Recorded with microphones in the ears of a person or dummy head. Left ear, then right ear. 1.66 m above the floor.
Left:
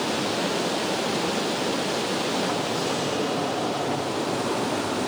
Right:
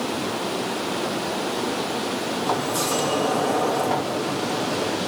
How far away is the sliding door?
About 2.5 m.